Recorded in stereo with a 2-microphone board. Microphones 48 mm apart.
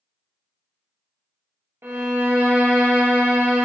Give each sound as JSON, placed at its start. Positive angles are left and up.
{"t": 1.8, "sound": "a violin", "side_deg": -65, "distance_m": 0.5}